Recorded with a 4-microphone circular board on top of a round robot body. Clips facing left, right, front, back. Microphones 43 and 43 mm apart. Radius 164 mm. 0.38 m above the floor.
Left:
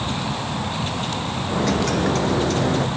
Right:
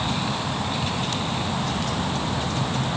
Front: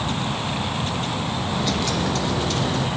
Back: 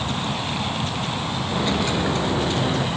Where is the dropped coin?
115° left.